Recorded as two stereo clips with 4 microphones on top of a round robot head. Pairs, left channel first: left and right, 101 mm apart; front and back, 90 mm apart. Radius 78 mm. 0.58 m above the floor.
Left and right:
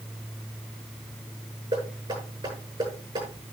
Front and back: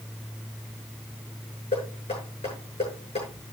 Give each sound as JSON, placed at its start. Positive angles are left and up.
{"t": 1.7, "sound": "knocking", "azimuth_deg": -35, "distance_m": 9.0}